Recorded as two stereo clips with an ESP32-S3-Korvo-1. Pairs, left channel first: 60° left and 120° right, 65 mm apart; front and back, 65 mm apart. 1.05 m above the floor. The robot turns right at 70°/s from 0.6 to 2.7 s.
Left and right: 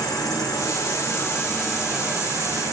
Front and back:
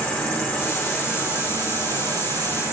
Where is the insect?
70° left, 0.9 m; by 2.7 s 145° right, 0.9 m.